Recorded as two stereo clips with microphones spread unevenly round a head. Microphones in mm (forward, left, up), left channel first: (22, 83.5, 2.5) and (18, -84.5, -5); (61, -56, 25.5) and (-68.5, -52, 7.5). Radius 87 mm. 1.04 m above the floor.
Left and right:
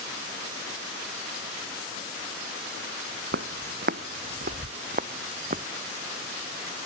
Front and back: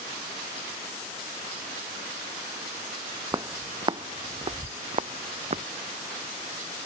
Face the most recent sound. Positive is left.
turn(degrees=-145)